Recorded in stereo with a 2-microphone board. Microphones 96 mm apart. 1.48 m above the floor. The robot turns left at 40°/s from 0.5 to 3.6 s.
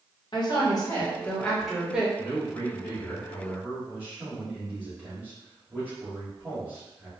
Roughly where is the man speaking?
Ahead left.